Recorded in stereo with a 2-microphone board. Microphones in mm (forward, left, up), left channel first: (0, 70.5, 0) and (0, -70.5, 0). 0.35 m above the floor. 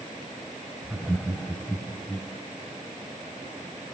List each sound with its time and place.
0.8 s laughter: 10° right (ahead or behind), 1.1 m; by 2.3 s 25° left (ahead or behind), 2.5 m